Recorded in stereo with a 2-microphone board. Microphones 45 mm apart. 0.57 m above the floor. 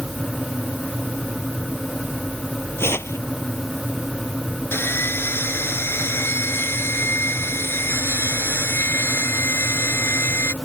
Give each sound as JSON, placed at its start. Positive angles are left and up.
{"t": 2.8, "sound": "tearing paper", "side_deg": 75}
{"t": 4.7, "sound": "sawing", "side_deg": 65}